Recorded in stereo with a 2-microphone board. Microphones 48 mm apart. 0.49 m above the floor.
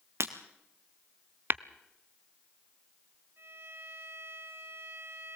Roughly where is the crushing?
No crushing in this recording.